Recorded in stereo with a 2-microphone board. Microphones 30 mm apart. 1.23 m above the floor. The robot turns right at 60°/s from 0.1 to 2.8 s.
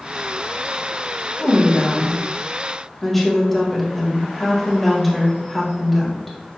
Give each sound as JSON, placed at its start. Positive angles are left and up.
{"t": 1.4, "sound": "a woman speaking", "azimuth_deg": 90, "distance_m": 1.2}